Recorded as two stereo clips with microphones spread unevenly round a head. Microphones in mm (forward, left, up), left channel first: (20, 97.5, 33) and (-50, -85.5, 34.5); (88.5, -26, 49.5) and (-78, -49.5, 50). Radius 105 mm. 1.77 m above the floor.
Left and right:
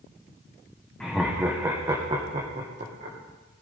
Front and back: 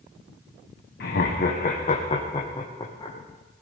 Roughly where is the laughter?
Ahead.